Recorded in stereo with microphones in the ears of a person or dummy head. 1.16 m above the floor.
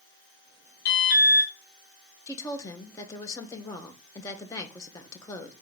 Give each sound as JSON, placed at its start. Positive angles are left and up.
{"t": 0.8, "sound": "an alarm", "side_deg": 60, "distance_m": 1.8}
{"t": 2.3, "sound": "a woman speaking", "side_deg": 15, "distance_m": 0.8}